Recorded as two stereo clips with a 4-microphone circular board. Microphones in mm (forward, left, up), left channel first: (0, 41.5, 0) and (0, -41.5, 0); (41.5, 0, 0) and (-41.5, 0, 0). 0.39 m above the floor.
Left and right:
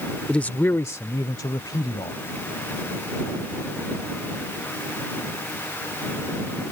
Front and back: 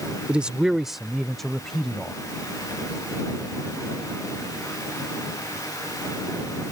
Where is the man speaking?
140° left; by 2.2 s 80° left.